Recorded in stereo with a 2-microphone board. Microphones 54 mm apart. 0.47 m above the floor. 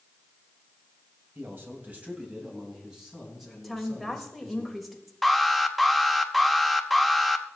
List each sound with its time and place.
1.4 s a man speaking: 45° right (ahead or behind), 2 m; by 4.6 s 5° left (ahead or behind), 5 m
3.6 s a woman speaking: centre (ahead or behind), 1.7 m
5.2 s an alarm: centre (ahead or behind), 0.7 m